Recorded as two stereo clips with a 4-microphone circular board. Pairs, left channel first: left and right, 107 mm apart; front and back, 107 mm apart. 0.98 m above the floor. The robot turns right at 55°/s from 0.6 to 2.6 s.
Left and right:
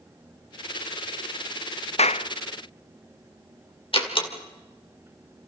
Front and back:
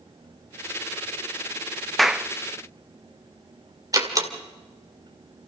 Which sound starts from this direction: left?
A clap, at 2.0 s.